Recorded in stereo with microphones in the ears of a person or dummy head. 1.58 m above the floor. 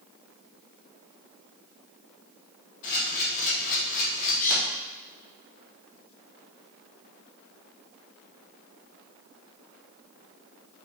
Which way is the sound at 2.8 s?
40° left (ahead or behind).